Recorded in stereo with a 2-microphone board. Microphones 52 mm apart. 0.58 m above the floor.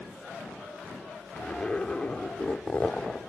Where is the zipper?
20° left (ahead or behind), 0.7 m.